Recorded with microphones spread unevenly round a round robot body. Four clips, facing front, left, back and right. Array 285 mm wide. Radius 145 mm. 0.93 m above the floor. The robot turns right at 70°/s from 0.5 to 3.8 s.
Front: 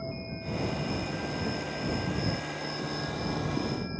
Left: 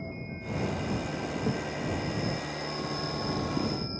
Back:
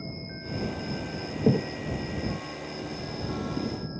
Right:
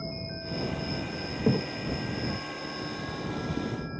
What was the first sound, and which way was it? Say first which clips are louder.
An insect: right 1 dB, front 2 dB; 135° right.